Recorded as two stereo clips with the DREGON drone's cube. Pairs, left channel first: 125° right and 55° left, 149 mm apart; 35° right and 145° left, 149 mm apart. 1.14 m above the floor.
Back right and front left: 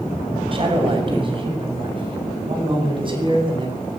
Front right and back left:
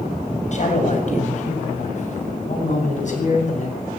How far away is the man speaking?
About 6.5 m.